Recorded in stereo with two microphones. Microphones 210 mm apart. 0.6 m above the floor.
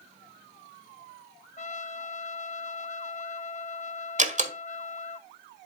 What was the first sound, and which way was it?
A trumpet, 35° left (ahead or behind).